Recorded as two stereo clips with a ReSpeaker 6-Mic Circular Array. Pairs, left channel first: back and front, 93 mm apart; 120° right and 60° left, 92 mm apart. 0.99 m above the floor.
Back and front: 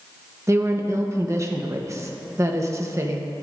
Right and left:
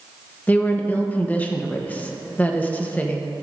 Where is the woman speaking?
50° right, 1.1 m.